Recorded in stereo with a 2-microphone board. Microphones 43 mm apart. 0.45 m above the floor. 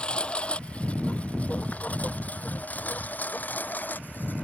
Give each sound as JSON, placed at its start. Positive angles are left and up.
{"t": 0.0, "sound": "a lawn mower", "side_deg": 25}